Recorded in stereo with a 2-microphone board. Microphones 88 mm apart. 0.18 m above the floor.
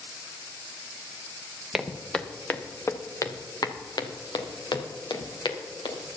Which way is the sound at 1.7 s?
5° right (ahead or behind).